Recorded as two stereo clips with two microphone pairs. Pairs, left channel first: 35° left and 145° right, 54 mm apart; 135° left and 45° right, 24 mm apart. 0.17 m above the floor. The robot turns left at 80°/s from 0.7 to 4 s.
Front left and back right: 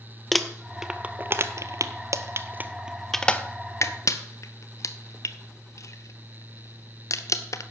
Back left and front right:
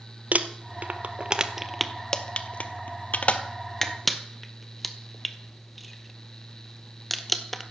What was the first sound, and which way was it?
Crumpling, 50° right.